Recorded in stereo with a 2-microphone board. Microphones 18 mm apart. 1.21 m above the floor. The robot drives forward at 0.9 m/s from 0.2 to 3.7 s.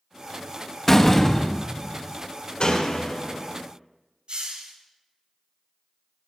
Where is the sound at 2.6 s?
60° left (ahead or behind), 3 m; by 3.6 s 50° left (ahead or behind), 3.5 m.